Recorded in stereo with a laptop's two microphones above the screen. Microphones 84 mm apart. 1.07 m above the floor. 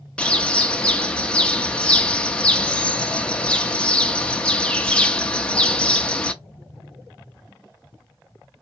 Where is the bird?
10° left (ahead or behind), 0.6 m.